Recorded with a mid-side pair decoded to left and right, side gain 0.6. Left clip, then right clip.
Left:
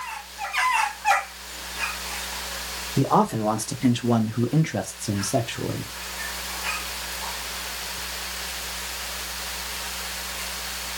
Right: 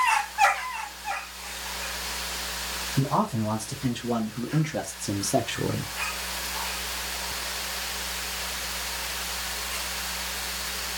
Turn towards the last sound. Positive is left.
turn(degrees=-15)